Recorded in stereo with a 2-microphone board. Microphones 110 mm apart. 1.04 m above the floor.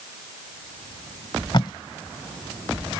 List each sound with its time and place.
1.5 s tape being pulled: 45° left (ahead or behind)